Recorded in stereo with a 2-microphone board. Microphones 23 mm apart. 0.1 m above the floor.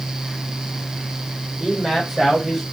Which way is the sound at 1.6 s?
10° right (ahead or behind).